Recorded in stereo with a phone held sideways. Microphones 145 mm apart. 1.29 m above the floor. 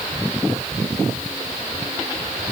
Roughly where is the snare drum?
I don't hear a snare drum.